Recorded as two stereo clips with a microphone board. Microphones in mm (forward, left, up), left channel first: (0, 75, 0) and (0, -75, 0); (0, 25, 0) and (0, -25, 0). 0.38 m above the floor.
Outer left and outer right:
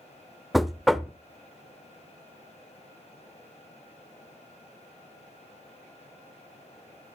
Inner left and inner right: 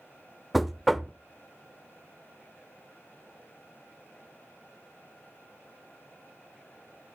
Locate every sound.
0.5 s knocking: centre (ahead or behind), 0.6 m